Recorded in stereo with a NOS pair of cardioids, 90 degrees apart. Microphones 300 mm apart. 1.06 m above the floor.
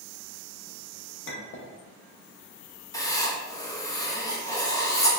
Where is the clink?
40° left, 0.8 m.